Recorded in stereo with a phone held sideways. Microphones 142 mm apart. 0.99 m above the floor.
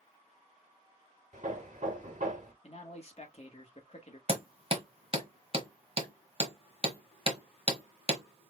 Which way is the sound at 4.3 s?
45° right (ahead or behind).